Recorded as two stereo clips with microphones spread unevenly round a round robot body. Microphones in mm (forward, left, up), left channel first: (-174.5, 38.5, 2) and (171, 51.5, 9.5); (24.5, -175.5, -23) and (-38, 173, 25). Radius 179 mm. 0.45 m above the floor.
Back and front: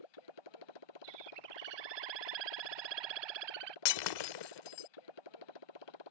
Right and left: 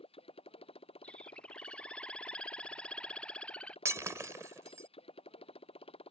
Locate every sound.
0.0 s a motorcycle: 155° right
1.0 s a bird: 10° left
3.9 s breaking glass: 175° right